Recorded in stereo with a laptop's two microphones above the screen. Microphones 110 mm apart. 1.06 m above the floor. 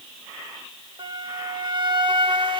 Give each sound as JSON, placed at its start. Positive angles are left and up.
{"t": 1.0, "sound": "a flute", "side_deg": -45, "distance_m": 1.5}